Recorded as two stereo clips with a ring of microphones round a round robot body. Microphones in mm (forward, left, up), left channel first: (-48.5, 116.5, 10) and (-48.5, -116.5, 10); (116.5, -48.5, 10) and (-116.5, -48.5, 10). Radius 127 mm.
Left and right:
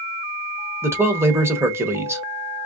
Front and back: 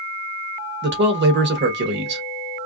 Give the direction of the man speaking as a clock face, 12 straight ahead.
6 o'clock.